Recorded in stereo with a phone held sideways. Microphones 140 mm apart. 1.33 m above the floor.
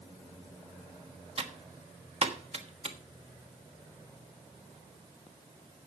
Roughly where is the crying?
I don't hear crying.